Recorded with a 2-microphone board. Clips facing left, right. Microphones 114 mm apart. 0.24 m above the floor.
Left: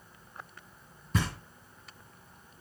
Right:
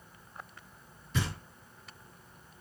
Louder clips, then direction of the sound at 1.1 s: Left 3 dB; 45° left (ahead or behind).